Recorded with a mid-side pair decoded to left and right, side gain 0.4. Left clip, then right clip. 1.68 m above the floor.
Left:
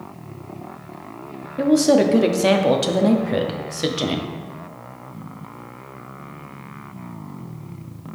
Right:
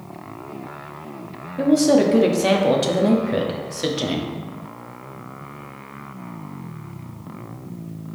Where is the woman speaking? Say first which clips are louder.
Even; 20° left, 0.6 m.